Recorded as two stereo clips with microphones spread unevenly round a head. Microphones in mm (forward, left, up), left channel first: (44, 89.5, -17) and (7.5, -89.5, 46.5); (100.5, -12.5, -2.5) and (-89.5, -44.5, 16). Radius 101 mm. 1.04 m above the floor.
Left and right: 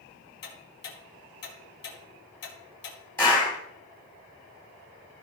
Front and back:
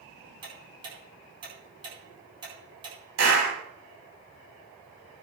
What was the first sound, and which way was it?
Ticking, 120° left.